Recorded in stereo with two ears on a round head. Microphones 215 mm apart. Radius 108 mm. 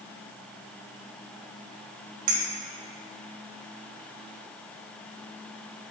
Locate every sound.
2.3 s a clink: 80° right, 1.8 m